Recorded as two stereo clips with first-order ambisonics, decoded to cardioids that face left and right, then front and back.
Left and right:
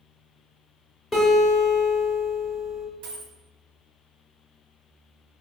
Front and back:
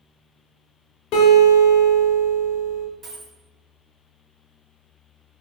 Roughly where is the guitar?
Ahead.